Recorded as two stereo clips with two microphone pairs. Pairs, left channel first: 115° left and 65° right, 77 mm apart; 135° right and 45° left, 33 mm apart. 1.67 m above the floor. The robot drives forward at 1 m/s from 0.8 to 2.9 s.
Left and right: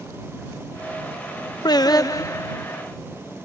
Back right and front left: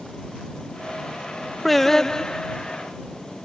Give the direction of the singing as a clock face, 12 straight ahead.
7 o'clock.